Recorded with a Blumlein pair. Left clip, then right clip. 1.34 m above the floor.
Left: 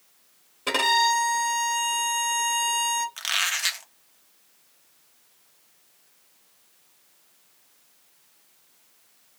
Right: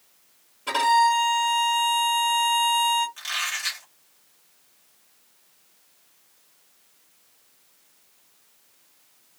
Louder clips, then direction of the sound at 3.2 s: Left 3 dB; 25° left.